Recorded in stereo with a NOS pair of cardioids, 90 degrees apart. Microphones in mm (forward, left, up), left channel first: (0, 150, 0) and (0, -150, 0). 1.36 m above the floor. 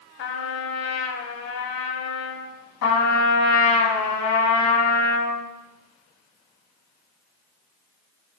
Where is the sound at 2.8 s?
70° left, 1.4 m.